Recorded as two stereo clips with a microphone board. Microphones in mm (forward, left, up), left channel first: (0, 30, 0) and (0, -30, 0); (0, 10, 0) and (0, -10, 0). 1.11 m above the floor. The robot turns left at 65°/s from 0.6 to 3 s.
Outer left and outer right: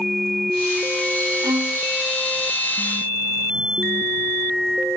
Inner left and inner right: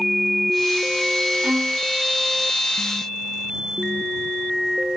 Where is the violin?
75° right (ahead or behind); by 1.8 s 80° right.